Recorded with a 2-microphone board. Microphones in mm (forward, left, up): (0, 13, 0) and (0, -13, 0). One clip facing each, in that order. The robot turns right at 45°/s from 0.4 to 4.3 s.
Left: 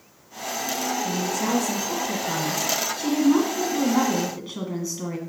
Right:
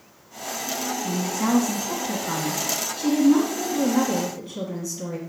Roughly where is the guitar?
I don't hear a guitar.